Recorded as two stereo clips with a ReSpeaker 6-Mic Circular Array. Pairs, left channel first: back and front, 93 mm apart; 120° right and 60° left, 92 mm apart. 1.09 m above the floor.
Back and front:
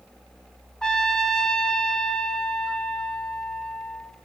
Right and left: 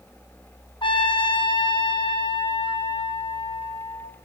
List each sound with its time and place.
0.8 s a trumpet: 100° right, 0.8 m